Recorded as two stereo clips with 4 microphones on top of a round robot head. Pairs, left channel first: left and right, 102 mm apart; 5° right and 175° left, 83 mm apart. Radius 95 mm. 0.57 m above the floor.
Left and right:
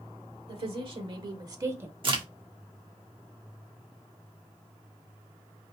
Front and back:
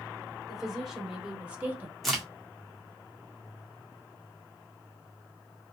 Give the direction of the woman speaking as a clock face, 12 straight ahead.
3 o'clock.